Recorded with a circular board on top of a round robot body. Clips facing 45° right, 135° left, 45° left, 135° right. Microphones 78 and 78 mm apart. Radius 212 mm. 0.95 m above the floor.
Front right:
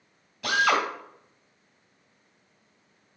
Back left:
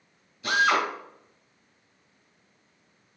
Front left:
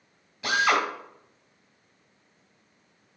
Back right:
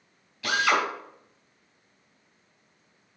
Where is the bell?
No bell in this recording.